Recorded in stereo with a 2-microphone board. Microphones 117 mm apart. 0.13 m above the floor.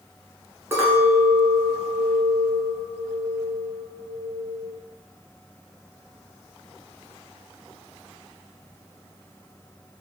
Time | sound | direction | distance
0.7 | a clink | 20° right (ahead or behind) | 1.2 m